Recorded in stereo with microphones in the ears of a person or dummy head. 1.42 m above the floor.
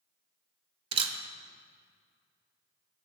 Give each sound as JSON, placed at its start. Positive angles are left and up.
{"t": 0.9, "sound": "a camera shutter", "side_deg": -30, "distance_m": 0.7}